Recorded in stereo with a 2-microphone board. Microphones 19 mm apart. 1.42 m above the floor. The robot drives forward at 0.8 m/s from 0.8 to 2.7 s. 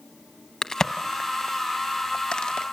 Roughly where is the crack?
Left.